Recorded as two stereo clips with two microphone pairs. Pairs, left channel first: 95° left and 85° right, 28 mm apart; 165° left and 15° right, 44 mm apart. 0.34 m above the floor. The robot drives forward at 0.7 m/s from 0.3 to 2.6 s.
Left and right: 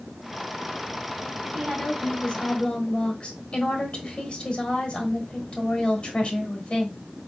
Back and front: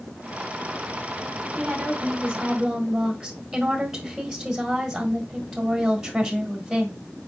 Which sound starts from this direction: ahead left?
A woman speaking, at 1.5 s.